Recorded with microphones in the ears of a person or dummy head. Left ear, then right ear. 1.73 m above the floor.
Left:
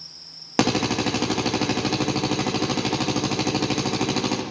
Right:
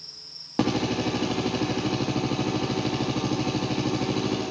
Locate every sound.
0.6 s a drill: 60° left (ahead or behind), 2.5 m